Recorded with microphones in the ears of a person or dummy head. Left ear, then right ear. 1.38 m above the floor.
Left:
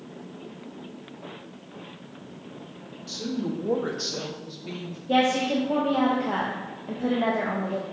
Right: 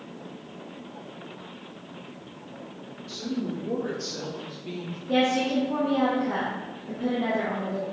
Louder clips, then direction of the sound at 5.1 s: Left 1 dB; 35° left (ahead or behind).